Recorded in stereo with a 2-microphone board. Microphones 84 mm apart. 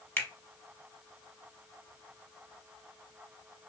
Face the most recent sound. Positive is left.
turn(degrees=25)  # may be behind; listen again after turning